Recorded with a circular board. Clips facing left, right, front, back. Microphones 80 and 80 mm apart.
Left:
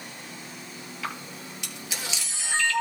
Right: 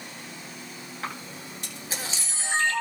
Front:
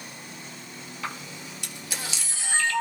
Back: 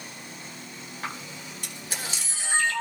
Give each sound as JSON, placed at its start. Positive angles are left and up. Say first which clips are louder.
{"t": 1.0, "sound": "a camera shutter", "louder": "even, front 1 dB", "azimuth_deg": -140, "distance_m": 3.0}